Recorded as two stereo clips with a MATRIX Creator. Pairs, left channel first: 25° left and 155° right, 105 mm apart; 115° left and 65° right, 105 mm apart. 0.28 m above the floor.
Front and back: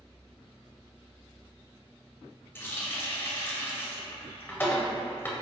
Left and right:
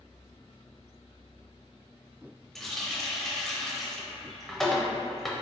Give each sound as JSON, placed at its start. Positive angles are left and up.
{"t": 2.5, "sound": "a running tap", "azimuth_deg": 30, "distance_m": 0.6}